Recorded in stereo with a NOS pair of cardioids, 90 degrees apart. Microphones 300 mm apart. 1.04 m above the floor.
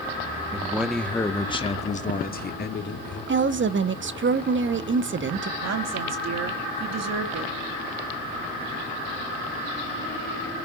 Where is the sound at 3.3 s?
40° right, 1.2 m.